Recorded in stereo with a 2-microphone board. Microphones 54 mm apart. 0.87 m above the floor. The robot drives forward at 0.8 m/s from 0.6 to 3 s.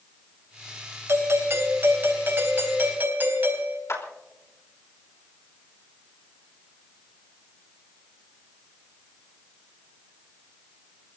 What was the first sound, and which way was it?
A doorbell, 55° right (ahead or behind).